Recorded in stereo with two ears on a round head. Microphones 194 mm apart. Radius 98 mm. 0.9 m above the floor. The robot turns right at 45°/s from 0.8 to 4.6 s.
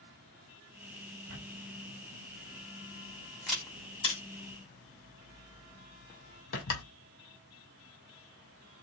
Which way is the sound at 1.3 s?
80° right.